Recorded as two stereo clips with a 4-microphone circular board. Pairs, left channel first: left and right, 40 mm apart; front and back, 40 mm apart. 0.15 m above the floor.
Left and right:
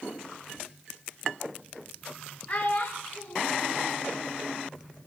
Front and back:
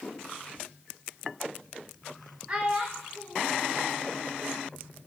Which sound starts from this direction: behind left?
A child speaking, at 2.5 s.